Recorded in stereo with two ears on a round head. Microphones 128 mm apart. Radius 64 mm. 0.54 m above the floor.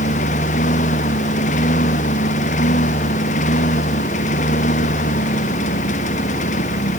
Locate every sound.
0.0 s a lawn mower: 60° left (ahead or behind)